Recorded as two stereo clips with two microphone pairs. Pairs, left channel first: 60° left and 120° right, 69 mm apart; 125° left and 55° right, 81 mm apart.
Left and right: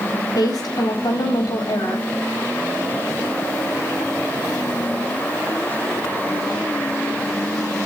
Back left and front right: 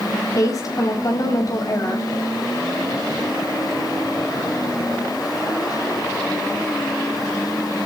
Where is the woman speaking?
80° left, 6 m.